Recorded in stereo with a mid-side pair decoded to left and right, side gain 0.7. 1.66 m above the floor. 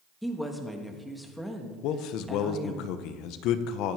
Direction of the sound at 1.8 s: 60° left.